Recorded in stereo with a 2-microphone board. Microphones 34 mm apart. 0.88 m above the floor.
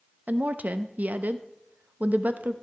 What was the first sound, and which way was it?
A woman speaking, 50° right (ahead or behind).